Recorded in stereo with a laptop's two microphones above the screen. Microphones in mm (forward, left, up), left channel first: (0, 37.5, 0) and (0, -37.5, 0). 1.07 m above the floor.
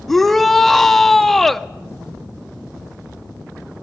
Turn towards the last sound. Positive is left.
turn(degrees=5)  # may be behind; listen again after turning